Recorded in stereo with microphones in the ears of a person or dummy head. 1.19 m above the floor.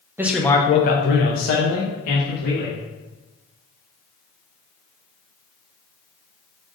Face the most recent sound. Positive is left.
turn(degrees=85)